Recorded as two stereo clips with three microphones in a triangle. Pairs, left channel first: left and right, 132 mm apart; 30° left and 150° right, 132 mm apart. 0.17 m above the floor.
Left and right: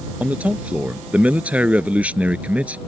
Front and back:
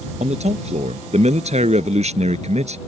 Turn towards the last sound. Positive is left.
turn(degrees=-170)